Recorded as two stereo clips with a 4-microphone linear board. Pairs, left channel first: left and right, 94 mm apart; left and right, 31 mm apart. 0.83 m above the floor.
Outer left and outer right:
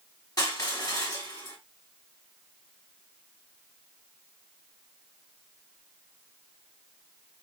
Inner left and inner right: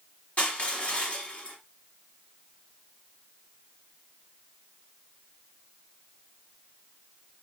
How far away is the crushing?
About 1.5 m.